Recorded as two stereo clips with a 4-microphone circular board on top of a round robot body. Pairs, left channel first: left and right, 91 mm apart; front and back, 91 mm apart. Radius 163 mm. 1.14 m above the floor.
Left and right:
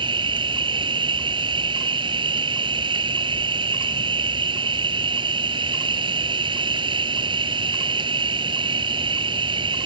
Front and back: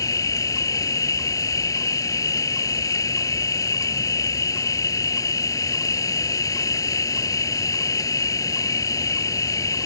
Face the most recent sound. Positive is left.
turn(degrees=-55)